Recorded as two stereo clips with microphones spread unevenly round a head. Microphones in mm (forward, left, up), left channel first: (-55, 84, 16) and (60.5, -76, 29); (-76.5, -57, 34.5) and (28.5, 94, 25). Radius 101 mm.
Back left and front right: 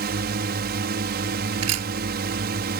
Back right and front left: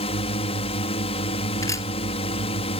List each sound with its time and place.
0.0 s a drone: 75° right
1.6 s a camera shutter: 50° right